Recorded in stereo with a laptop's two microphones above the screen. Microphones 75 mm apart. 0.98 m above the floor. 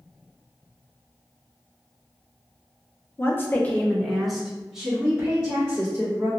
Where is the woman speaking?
30° left (ahead or behind), 0.5 m; by 6.3 s 15° right (ahead or behind), 1.9 m.